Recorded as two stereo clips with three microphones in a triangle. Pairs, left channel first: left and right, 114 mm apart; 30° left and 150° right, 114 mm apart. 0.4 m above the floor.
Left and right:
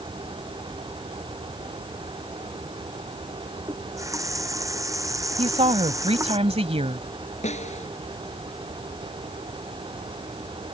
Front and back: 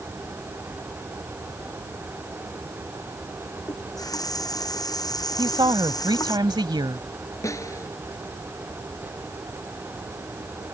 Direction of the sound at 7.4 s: 90° left.